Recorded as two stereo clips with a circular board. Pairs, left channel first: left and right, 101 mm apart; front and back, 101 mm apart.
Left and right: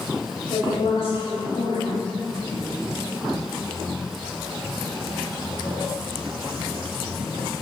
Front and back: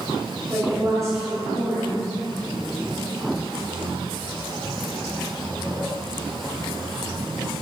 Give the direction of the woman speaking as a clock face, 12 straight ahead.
8 o'clock.